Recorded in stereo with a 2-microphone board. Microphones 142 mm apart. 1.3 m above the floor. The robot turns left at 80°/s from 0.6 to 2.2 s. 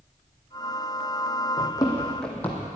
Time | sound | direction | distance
1.6 | running footsteps | 35° left (ahead or behind) | 3 m